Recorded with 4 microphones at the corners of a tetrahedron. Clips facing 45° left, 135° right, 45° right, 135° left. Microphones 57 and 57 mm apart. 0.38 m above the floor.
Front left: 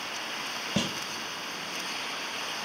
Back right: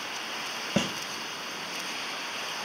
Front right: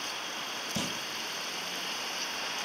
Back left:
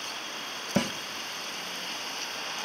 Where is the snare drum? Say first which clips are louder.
Back right 2 dB, back left 9 dB; 165° left, 1.2 m.